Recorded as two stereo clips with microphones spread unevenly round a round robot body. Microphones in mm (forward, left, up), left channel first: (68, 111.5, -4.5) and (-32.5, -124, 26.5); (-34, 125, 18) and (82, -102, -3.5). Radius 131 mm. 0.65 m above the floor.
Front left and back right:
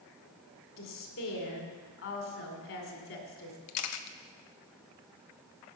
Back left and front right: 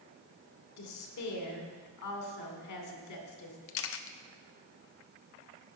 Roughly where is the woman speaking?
Left.